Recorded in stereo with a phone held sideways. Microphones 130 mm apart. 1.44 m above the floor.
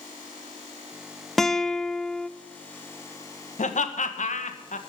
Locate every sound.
1.4 s a guitar: centre (ahead or behind), 0.7 m
3.6 s laughter: 70° left (ahead or behind), 1.5 m